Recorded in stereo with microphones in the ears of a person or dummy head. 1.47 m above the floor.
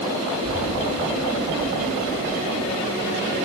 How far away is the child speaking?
About 7 m.